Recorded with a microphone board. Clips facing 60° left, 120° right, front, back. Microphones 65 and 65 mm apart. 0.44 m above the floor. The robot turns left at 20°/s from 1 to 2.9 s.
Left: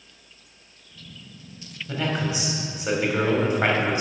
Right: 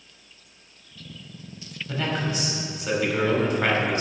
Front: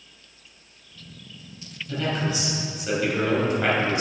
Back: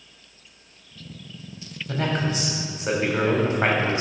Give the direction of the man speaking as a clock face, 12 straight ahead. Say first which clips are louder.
Left 1 dB, back 1 dB; 7 o'clock.